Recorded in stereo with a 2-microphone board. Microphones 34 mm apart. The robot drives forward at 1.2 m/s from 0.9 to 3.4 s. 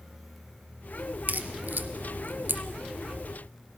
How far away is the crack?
About 2 m.